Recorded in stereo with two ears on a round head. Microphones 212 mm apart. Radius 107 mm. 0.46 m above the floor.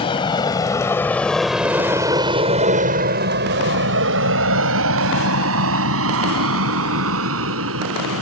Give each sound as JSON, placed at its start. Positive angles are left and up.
{"t": 0.0, "sound": "an aircraft", "side_deg": 20}